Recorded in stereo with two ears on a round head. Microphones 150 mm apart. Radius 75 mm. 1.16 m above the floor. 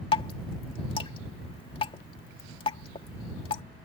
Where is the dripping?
30° left (ahead or behind).